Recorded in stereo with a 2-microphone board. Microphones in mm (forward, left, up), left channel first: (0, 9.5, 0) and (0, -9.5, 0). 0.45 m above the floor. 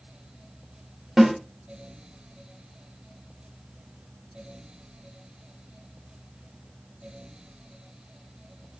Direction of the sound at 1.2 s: 25° right (ahead or behind).